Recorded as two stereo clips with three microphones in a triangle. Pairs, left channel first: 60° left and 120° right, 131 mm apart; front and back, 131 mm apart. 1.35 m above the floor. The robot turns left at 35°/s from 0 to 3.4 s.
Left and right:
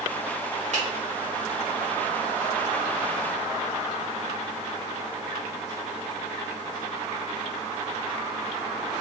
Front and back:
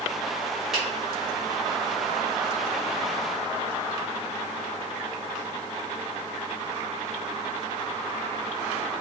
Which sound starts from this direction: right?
A finger snap, at 0.7 s.